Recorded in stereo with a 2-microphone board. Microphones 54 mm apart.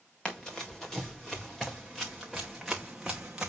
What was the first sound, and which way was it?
Running footsteps, 15° left (ahead or behind).